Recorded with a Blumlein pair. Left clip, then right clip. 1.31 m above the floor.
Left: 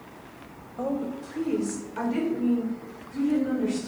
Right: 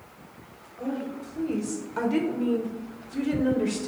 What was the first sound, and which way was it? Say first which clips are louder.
A woman speaking: left 3 dB; 35° left.